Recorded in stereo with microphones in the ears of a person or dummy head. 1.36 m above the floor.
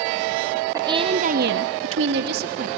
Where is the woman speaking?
15° right (ahead or behind), 1.1 m; by 2.7 s 55° right (ahead or behind), 1.5 m.